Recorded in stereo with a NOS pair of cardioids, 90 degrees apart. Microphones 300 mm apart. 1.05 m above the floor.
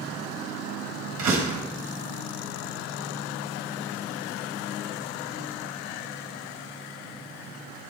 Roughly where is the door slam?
Ahead right.